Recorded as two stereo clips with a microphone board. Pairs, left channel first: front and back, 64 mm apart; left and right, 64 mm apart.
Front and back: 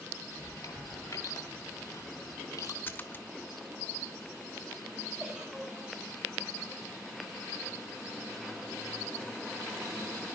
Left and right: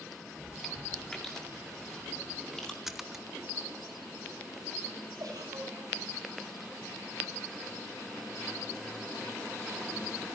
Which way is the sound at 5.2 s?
105° right.